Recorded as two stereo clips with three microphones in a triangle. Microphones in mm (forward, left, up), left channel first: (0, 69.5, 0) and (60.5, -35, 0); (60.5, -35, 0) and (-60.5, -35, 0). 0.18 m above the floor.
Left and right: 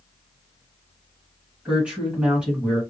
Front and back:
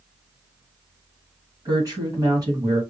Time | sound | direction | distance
1.6 | a woman speaking | 135° right | 1.8 m